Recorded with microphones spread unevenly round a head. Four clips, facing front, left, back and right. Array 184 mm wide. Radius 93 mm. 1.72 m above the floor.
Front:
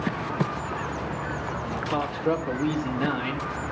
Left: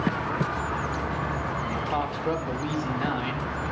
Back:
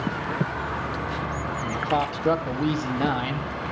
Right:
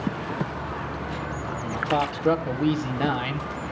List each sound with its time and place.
1.6 s a man speaking: 125° right, 2.5 m